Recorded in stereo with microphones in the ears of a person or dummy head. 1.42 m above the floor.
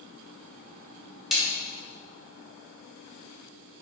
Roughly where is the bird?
I don't hear a bird.